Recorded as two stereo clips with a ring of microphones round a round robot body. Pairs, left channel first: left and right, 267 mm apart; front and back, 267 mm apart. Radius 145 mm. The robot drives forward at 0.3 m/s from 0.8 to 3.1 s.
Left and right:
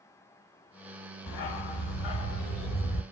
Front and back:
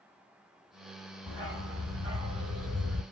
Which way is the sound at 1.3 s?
95° left.